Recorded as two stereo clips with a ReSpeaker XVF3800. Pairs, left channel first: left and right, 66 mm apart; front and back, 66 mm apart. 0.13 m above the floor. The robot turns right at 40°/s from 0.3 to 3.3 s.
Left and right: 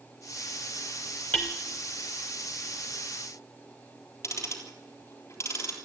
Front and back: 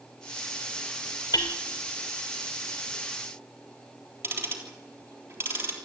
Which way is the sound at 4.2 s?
130° left.